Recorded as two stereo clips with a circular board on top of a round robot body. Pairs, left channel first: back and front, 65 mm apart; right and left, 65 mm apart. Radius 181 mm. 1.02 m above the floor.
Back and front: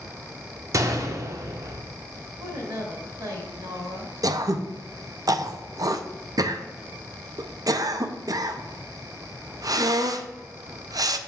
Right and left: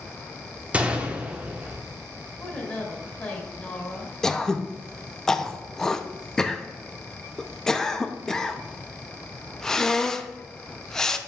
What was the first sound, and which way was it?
A gunshot, 25° left.